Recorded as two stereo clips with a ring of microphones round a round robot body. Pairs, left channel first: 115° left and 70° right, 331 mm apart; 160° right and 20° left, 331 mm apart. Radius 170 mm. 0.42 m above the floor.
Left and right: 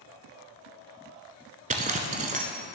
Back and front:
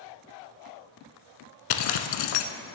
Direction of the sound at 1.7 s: 135° right.